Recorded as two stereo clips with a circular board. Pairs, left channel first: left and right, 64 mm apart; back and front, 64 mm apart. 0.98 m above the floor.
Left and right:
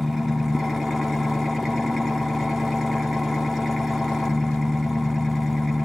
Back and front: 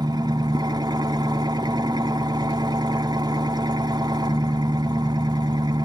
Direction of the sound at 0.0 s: 5° right.